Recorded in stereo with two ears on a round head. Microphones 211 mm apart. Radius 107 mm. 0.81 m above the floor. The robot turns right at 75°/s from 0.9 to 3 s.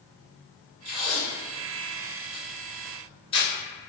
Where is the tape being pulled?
5° right (ahead or behind), 1.4 m; by 3.5 s 25° left (ahead or behind), 1.4 m.